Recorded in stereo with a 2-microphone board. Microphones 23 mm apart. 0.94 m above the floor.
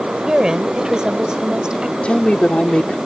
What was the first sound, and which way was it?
A woman speaking, 30° right (ahead or behind).